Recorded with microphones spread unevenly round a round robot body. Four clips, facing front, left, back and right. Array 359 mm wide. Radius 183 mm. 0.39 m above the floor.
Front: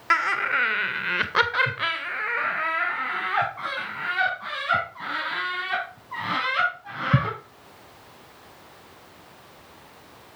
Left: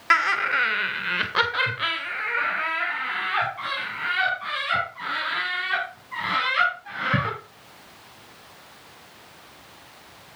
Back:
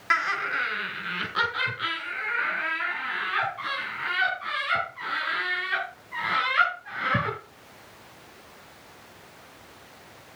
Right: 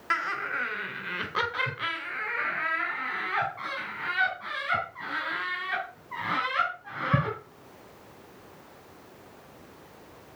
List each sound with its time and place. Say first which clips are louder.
0.1 s laughter: left 8 dB, front 3 dB; 25° left, 1.5 m; by 7.3 s 5° right, 4.5 m